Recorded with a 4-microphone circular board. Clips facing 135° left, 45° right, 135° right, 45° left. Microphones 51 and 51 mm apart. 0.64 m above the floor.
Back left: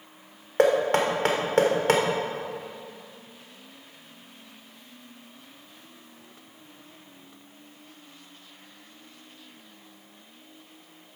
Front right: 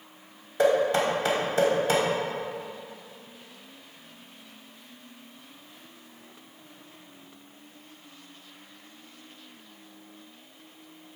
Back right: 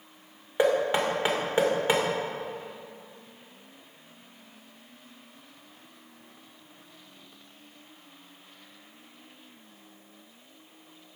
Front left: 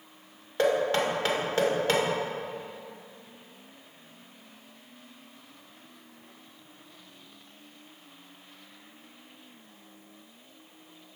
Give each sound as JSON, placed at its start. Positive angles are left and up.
{"t": 0.6, "sound": "knocking", "azimuth_deg": 155, "distance_m": 1.8}